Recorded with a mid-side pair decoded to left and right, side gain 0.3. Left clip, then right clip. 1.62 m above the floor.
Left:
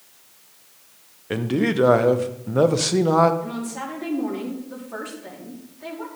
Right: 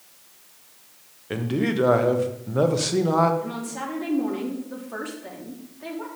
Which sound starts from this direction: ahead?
A woman speaking, at 3.4 s.